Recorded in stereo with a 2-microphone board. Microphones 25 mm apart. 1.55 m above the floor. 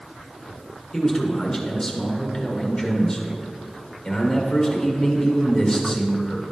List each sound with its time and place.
0.9 s a man speaking: 15° left (ahead or behind), 1.6 m